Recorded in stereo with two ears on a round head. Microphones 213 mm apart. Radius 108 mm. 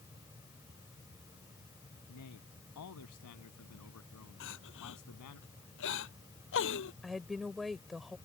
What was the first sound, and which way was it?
A man speaking, 80° left.